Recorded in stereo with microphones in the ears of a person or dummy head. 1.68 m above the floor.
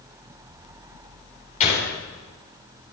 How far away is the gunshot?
About 5.5 m.